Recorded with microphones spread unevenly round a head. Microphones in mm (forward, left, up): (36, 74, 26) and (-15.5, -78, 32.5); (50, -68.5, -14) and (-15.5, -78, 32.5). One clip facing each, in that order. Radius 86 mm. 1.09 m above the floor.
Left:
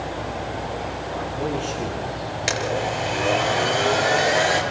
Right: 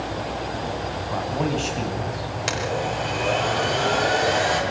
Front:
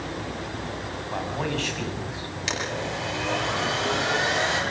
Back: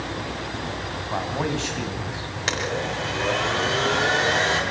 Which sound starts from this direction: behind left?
A blender, at 2.5 s.